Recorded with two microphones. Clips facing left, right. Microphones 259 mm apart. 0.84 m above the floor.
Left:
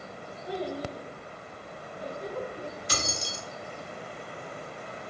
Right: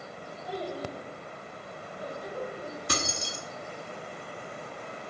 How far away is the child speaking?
About 1.5 m.